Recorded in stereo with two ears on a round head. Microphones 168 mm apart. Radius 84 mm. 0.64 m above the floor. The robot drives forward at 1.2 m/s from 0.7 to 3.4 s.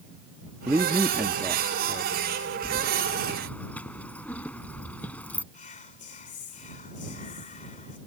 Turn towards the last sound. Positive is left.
turn(degrees=40)  # may be behind; listen again after turning